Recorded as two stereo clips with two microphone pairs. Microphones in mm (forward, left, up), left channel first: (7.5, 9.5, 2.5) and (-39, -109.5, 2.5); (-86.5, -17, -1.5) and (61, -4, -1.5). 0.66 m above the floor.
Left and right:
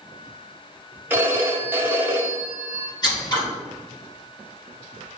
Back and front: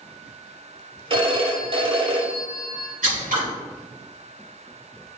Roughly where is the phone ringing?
Ahead right.